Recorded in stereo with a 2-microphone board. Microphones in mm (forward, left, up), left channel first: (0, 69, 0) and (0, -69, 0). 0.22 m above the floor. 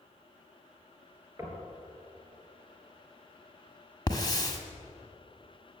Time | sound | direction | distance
1.4 | knocking | 20° right (ahead or behind) | 3.5 m
4.1 | a hiss | 30° left (ahead or behind) | 1.7 m